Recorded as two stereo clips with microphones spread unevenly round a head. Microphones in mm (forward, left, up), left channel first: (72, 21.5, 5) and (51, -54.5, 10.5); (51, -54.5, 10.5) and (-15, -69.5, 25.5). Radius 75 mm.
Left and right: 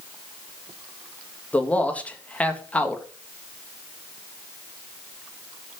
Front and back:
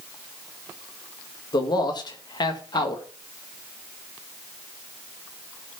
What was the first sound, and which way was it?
A man speaking, 5° left.